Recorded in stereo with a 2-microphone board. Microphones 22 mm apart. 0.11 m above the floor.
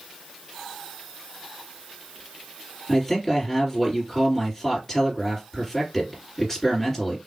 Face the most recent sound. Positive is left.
turn(degrees=15)  # may be behind; listen again after turning